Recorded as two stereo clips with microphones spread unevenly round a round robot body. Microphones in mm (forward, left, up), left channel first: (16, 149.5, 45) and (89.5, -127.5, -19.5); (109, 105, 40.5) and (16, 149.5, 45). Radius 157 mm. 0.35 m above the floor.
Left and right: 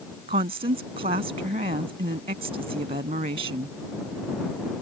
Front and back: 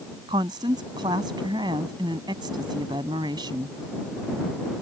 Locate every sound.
0.3 s a woman speaking: 145° right